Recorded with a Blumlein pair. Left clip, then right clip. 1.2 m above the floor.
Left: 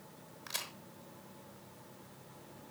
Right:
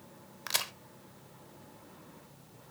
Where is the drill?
No drill in this recording.